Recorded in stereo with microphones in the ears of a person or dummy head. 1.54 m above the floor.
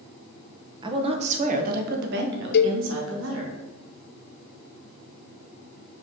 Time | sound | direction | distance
0.8 | a woman speaking | 25° right (ahead or behind) | 1.2 m
2.5 | a cowbell | 60° left (ahead or behind) | 0.6 m